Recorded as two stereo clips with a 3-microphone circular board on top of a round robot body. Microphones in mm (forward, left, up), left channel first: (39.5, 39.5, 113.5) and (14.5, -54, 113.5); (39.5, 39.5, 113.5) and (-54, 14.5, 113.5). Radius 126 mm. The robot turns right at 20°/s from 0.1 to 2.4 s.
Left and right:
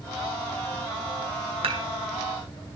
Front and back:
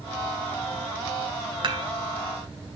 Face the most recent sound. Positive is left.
turn(degrees=-110)